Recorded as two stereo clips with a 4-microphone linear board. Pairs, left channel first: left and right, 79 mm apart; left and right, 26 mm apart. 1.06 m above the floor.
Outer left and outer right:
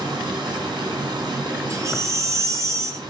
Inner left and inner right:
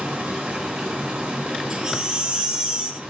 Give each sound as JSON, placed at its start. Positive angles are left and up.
{"t": 0.0, "sound": "running water", "side_deg": -65, "distance_m": 5.0}
{"t": 1.7, "sound": "a baby crying", "side_deg": -40, "distance_m": 1.6}